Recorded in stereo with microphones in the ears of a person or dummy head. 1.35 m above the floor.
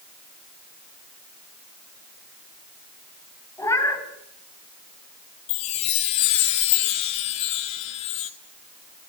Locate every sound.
3.6 s a cat meowing: 10° left (ahead or behind), 3.5 m
5.5 s a chime: 25° left (ahead or behind), 0.8 m